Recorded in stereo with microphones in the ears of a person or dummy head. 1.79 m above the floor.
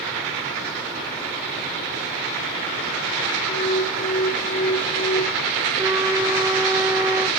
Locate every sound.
3.5 s an alarm: 15° left (ahead or behind), 1.4 m
5.8 s a flute: 10° right (ahead or behind), 1.0 m